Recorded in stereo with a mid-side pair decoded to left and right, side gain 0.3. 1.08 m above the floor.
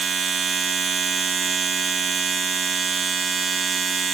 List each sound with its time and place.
0.0 s a machine running: 55° right, 1.2 m